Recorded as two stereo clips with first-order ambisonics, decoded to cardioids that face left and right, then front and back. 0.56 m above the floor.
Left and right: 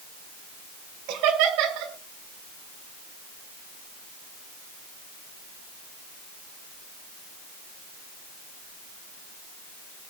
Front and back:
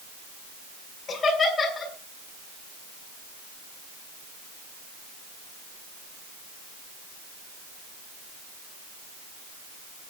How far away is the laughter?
About 5 m.